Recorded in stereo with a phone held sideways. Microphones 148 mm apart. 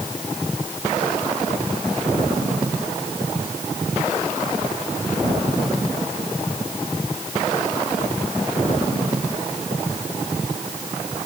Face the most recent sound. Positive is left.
No sound to turn to.